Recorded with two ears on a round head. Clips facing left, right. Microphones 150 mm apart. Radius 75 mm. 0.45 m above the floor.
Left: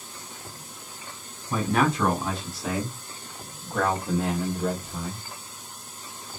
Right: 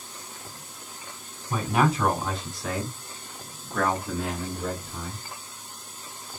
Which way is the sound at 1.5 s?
10° right (ahead or behind).